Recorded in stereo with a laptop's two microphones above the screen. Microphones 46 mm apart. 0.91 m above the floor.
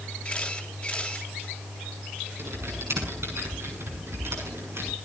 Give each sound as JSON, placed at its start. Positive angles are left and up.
{"t": 0.2, "sound": "a camera shutter", "side_deg": 20, "distance_m": 4.0}
{"t": 2.4, "sound": "typing on a keyboard", "side_deg": -65, "distance_m": 6.5}